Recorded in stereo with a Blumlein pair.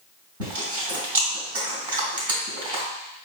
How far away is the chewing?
About 2 m.